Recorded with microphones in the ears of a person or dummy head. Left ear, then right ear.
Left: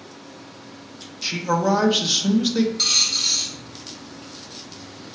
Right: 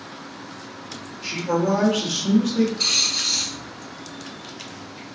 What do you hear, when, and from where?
1.2 s a man speaking: 65° left (ahead or behind), 0.7 m
2.8 s a dropped coin: 60° left (ahead or behind), 1.8 m